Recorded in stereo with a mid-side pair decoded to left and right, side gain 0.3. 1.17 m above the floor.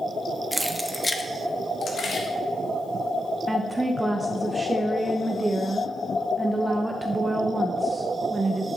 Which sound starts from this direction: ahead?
Keys jangling, at 0.5 s.